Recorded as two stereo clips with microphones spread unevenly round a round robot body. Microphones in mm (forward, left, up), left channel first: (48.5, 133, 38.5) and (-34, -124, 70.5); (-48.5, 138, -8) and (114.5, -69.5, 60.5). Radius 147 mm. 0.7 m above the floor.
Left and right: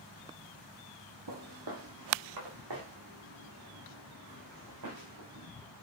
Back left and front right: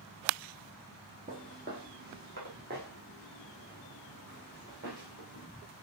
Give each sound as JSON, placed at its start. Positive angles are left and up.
{"t": 1.3, "sound": "footsteps", "azimuth_deg": -105, "distance_m": 1.6}